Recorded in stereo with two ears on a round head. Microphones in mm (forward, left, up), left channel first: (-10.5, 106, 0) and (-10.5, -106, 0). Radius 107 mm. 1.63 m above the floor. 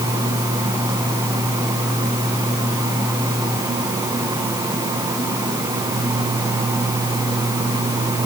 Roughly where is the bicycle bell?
I don't hear a bicycle bell.